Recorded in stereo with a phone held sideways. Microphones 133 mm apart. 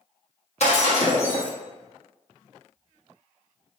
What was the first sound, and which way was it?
Breaking glass, 55° left (ahead or behind).